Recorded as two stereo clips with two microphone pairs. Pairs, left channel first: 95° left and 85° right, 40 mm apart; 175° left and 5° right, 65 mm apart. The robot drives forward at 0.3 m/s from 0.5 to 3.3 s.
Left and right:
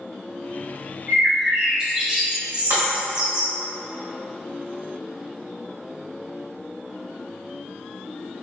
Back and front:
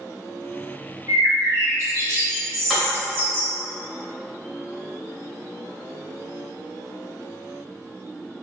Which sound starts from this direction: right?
Breaking glass, at 2.7 s.